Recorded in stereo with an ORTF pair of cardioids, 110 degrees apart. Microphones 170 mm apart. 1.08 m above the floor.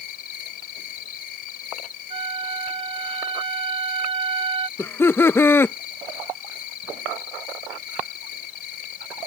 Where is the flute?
35° right.